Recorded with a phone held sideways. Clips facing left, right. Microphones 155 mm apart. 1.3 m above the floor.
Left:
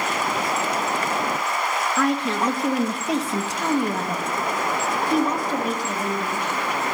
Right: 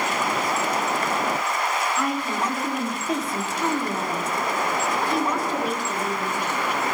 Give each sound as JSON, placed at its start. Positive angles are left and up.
{"t": 2.0, "sound": "a woman speaking", "side_deg": 75, "distance_m": 1.6}